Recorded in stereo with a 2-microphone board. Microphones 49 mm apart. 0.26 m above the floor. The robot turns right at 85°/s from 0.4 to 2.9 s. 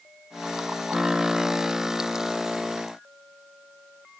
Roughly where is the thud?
I don't hear a thud.